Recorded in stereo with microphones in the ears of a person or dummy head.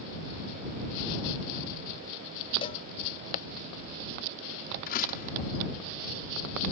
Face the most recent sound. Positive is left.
turn(degrees=50)  # may be behind; listen again after turning